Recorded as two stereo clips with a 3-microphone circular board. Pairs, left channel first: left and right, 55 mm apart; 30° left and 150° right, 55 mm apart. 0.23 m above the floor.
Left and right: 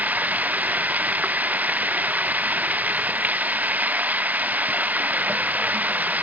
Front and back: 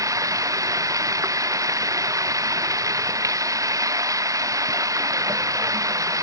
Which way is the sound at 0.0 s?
150° right.